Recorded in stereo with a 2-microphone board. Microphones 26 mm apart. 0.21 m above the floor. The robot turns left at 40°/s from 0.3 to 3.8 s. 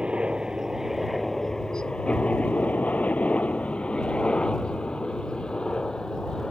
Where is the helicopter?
40° right (ahead or behind); by 6.5 s 30° left (ahead or behind).